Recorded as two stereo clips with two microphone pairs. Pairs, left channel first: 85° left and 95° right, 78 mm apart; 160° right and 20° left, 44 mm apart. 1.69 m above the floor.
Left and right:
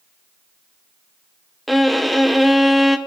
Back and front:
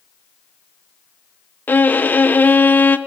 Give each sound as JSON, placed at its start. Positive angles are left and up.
{"t": 1.7, "sound": "a violin", "azimuth_deg": 175, "distance_m": 0.8}